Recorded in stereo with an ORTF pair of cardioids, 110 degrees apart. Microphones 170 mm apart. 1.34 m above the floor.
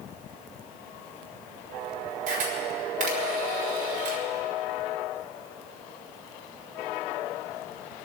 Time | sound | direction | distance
2.3 | a camera shutter | 50° right | 4.5 m